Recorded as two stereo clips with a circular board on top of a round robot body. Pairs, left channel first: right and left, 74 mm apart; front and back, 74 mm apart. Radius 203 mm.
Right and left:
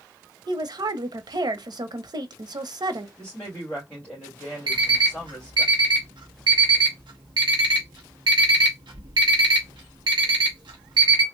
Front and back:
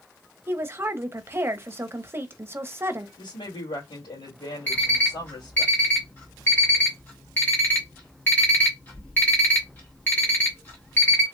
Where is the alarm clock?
65° left, 0.7 m.